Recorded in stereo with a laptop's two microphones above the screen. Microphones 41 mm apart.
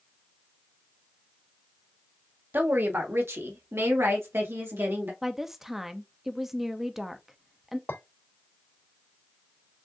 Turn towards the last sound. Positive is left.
turn(degrees=85)